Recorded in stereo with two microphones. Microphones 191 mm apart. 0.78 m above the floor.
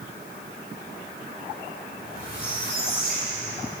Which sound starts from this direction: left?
A squeak, at 1.9 s.